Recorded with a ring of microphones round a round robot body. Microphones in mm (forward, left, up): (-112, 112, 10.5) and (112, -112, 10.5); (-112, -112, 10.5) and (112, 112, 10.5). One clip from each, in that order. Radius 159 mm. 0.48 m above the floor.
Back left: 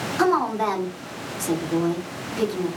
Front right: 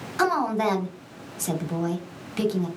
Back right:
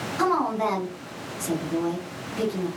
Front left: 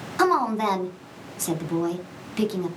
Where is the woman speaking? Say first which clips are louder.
Back left 1 dB, front left 2 dB; 10° left, 1.0 m.